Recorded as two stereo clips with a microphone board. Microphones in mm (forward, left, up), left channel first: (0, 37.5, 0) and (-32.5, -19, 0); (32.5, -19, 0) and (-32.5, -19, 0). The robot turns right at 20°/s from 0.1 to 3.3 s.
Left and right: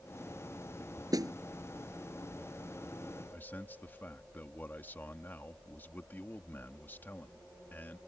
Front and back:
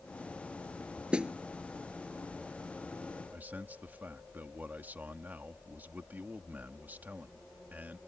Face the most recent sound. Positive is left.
turn(degrees=120)